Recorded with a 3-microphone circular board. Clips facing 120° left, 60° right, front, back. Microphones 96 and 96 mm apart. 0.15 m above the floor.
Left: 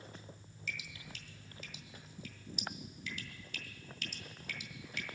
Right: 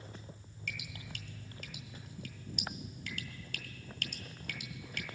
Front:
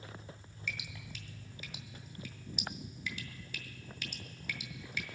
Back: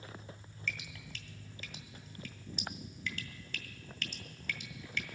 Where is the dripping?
85° right, 1.7 m.